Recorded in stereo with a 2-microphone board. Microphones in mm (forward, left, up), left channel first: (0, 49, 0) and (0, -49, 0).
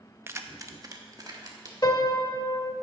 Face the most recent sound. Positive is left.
turn(degrees=45)  # may be behind; listen again after turning